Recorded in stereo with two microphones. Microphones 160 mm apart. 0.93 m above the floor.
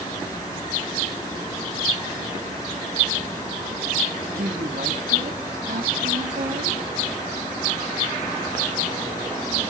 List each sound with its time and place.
4.3 s a woman speaking: 70° right (ahead or behind), 2 m